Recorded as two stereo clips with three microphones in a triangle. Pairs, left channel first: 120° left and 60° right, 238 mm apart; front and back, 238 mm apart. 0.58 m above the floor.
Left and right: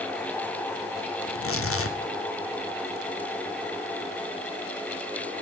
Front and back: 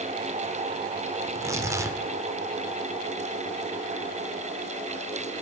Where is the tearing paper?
105° left, 0.6 m.